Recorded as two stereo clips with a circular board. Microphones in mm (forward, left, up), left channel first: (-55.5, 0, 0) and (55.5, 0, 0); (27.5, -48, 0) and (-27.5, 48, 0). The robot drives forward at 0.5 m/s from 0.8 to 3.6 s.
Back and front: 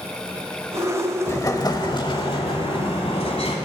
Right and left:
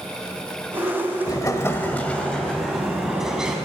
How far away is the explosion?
About 0.7 m.